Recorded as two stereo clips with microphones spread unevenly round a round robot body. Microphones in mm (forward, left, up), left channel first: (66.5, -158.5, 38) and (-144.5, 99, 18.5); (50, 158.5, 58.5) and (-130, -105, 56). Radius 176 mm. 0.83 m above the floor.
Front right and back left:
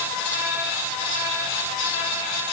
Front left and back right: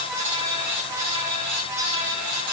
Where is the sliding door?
No sliding door in this recording.